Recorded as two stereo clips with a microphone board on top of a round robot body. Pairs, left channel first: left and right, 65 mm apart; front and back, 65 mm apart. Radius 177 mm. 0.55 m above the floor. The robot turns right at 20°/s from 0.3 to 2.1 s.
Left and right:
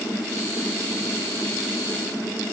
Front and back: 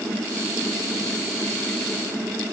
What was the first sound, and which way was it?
Only background noise.